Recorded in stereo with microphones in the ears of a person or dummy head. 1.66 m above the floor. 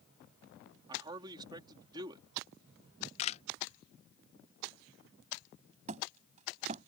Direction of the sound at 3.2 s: 45° left (ahead or behind).